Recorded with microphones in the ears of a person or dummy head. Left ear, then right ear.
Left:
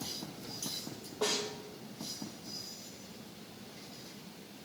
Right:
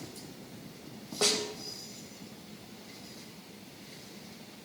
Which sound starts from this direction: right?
A snare drum, at 1.2 s.